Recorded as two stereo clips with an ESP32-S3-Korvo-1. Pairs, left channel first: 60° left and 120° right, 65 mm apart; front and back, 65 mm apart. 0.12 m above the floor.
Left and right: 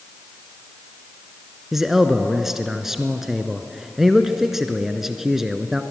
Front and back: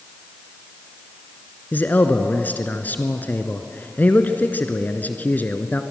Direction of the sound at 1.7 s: 40° right.